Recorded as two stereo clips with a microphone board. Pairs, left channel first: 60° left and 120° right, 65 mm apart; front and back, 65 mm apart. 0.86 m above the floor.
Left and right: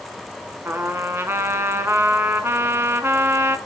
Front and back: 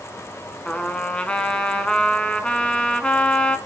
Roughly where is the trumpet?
Right.